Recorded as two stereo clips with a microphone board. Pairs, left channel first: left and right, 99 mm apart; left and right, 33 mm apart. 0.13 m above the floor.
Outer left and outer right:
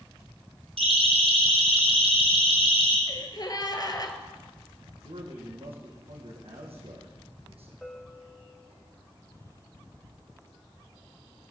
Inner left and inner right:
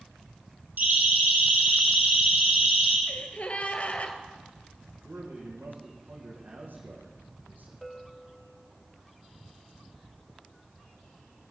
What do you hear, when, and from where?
0.8 s a siren: 75° right (ahead or behind), 5 m; by 3.0 s 70° right (ahead or behind), 5.5 m
3.1 s a gasp: 40° left (ahead or behind), 2.0 m
5.0 s a man speaking: 75° right (ahead or behind), 6 m
7.8 s a bell: centre (ahead or behind), 2.5 m